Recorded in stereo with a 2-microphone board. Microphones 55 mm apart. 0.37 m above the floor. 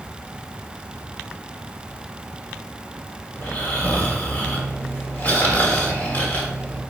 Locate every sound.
3.4 s snoring: 35° left (ahead or behind), 1.8 m